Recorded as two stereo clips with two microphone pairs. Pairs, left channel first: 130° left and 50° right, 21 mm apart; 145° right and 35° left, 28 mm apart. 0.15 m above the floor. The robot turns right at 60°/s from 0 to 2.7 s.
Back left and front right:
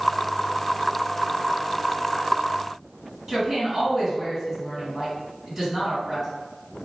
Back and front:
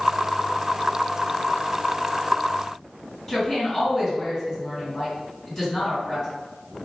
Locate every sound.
3.3 s a woman speaking: 105° right, 1.9 m